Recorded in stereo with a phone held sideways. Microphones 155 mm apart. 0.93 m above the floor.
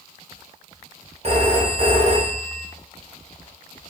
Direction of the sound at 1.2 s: 40° right (ahead or behind).